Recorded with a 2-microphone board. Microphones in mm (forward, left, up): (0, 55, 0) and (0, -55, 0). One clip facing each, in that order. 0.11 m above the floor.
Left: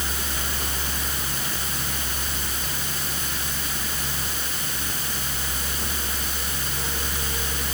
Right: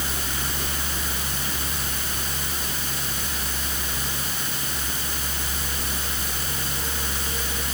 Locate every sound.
Only background noise.